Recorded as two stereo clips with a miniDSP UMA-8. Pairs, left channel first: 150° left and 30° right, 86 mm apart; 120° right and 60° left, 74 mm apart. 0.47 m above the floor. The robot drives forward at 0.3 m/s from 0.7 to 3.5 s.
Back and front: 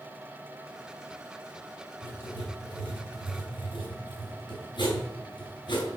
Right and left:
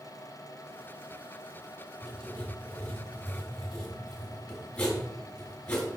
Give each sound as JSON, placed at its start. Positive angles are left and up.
{"t": 2.0, "sound": "writing", "azimuth_deg": 160, "distance_m": 3.0}